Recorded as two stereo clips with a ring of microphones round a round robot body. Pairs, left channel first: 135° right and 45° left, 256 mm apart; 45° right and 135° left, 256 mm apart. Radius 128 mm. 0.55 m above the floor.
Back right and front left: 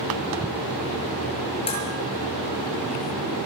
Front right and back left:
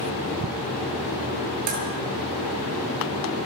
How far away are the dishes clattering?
About 7 m.